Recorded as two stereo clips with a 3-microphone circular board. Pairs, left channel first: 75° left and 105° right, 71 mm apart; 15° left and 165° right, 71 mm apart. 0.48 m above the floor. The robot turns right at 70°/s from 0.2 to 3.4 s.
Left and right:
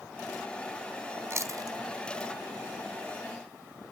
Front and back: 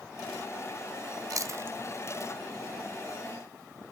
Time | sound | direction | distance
1.3 | chewing | 145° right | 0.5 m